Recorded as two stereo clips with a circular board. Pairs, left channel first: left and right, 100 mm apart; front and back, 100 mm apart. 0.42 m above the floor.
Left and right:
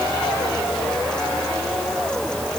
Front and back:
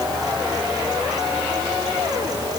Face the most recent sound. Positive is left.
No sound to turn to.